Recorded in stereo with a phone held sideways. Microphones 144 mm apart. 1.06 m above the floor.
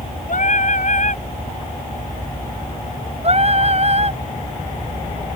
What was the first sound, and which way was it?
Singing, 60° left (ahead or behind).